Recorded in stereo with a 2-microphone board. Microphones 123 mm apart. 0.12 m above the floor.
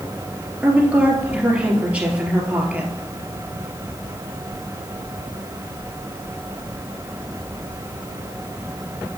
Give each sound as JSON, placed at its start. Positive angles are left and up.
{"t": 0.6, "sound": "a woman speaking", "side_deg": -10, "distance_m": 2.5}